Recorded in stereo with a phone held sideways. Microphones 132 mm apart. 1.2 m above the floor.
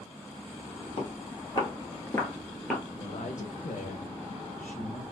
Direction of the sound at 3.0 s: 75° left (ahead or behind).